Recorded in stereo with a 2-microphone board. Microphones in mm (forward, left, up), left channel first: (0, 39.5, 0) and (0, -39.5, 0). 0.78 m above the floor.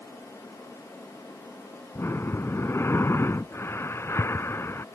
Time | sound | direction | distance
1.9 | breathing | 35° left (ahead or behind) | ?